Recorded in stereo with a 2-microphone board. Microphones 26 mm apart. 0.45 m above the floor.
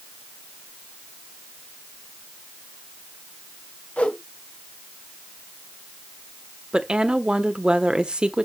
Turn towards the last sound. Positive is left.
turn(degrees=-35)  # may be behind; listen again after turning